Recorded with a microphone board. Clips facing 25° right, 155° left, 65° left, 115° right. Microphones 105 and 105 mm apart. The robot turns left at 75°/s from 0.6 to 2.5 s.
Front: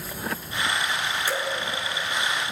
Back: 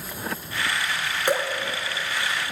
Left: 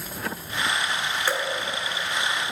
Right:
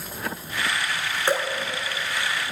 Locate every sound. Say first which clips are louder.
1.3 s dripping: back 7 dB, right 4 dB; straight behind, 2 m; by 1.5 s 165° left, 2 m